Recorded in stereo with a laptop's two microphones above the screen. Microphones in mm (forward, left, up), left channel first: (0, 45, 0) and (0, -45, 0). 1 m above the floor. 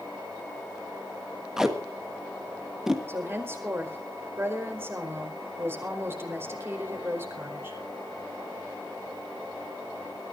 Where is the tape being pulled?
5° right (ahead or behind), 1.3 m.